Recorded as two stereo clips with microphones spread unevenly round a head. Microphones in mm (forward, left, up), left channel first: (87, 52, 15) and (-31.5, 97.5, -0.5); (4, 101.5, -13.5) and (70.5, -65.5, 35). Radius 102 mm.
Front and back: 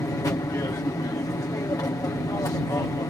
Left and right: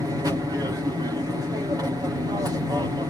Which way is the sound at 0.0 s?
10° left.